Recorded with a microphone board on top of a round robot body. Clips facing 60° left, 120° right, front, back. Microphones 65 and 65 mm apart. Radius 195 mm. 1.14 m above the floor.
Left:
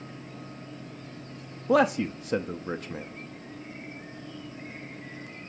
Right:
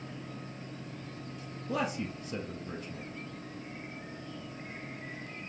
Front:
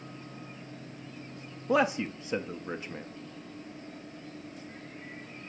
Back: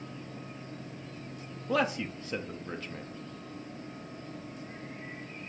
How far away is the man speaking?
About 0.6 m.